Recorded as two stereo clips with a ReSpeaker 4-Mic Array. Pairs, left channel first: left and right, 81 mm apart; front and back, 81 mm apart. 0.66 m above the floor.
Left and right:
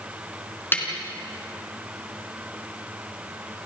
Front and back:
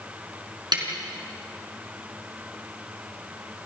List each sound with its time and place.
0.7 s a snare drum: 155° left, 4 m